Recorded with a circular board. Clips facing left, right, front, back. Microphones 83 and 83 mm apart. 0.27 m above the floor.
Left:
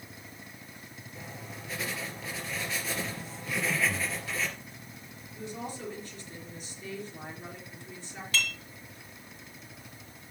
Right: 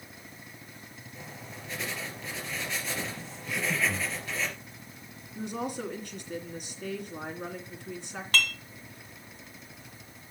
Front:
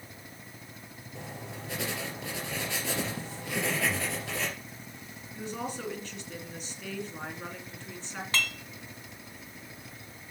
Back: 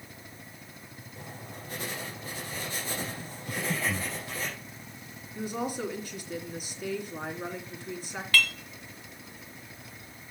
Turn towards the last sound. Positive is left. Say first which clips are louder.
# right 4 dB, back 5 dB
turn(degrees=-60)